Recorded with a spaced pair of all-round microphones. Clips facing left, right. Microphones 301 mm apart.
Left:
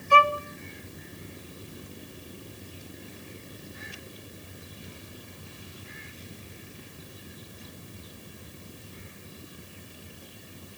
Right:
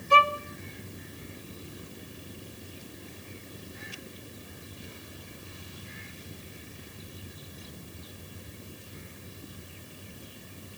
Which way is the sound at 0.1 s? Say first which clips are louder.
Left 2 dB; 45° right (ahead or behind).